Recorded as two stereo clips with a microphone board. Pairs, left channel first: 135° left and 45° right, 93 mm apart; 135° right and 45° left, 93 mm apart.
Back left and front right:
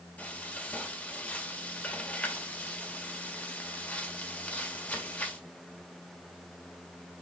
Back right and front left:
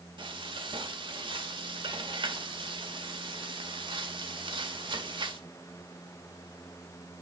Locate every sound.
0.2 s frying: 65° left, 1.7 m